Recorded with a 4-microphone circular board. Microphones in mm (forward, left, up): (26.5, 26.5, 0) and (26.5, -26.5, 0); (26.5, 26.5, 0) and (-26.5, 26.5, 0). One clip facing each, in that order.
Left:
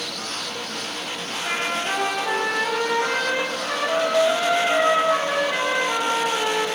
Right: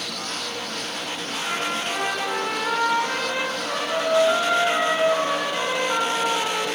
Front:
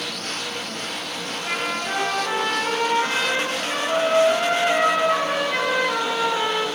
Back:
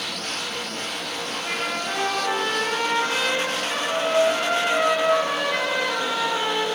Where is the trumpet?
80° left, 5.5 m.